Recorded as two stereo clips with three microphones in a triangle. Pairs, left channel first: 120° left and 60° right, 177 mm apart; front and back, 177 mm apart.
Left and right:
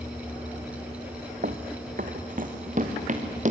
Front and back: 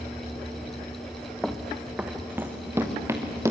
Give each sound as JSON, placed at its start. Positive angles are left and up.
{"t": 1.4, "sound": "running footsteps", "azimuth_deg": -90, "distance_m": 1.5}